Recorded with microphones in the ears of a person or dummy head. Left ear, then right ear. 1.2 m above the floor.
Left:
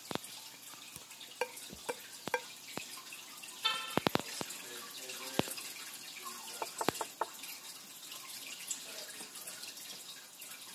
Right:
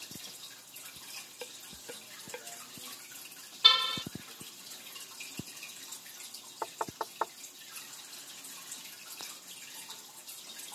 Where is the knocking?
10° right (ahead or behind).